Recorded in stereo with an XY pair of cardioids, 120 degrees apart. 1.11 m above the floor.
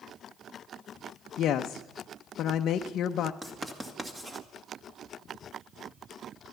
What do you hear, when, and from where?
1.4 s a woman speaking: 60° left, 0.7 m
3.4 s writing: 15° right, 1.9 m